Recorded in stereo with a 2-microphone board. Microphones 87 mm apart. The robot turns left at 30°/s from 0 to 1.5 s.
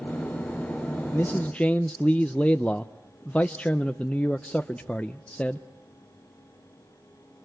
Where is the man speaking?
25° left (ahead or behind), 0.6 m; by 5.7 s 15° left (ahead or behind), 0.6 m.